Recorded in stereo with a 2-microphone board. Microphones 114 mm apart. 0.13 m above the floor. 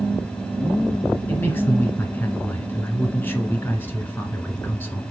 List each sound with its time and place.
1.3 s a man speaking: 15° left (ahead or behind), 1.5 m